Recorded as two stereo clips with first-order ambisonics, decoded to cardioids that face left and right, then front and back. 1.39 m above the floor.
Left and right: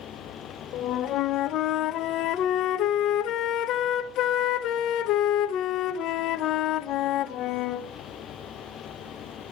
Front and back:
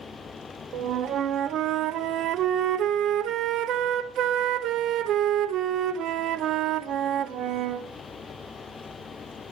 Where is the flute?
135° left, 0.8 m.